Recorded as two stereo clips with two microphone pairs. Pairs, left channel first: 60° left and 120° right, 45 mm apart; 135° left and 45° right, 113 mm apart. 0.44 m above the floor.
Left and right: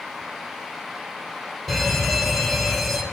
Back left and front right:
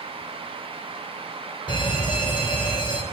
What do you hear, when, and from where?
1.7 s a fire alarm: 145° left, 3 m